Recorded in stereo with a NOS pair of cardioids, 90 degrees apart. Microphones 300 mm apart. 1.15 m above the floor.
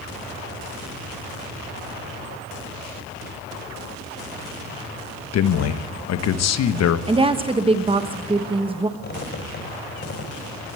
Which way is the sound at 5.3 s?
60° left.